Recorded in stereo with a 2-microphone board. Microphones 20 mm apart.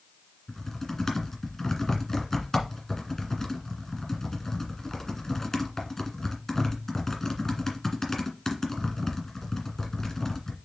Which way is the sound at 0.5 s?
25° left (ahead or behind).